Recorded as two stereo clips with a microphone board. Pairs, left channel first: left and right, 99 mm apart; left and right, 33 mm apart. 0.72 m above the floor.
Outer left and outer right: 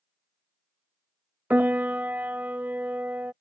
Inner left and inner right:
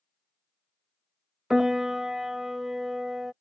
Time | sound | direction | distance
1.5 | a piano | 20° right (ahead or behind) | ?